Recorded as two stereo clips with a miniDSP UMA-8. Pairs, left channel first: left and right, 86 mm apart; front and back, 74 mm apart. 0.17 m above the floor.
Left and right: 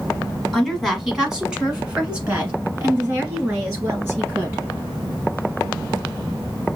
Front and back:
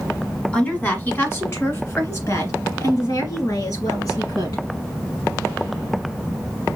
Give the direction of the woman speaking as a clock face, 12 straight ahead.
12 o'clock.